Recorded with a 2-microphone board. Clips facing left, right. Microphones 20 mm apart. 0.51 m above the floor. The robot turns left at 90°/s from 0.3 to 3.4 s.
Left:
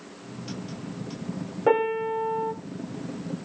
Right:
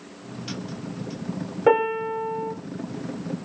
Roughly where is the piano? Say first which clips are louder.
Right 2 dB; behind right.